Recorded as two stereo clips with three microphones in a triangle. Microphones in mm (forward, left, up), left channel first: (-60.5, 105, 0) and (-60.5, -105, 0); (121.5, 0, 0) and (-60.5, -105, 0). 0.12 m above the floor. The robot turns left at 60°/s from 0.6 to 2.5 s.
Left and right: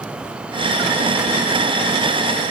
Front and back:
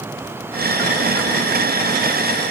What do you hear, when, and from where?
Only background noise.